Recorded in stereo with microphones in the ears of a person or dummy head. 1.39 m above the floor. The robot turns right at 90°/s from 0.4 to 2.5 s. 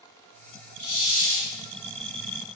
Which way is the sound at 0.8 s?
120° left.